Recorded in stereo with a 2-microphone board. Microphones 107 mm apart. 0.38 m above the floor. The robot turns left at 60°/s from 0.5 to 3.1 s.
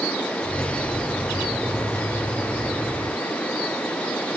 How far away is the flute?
No flute in this recording.